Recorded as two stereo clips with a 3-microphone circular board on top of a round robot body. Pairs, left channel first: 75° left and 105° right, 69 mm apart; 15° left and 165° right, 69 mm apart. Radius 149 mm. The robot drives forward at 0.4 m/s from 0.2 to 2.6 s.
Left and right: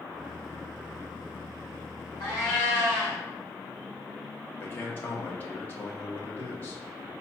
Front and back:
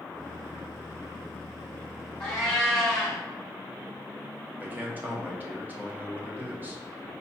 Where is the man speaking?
130° left, 1.1 m.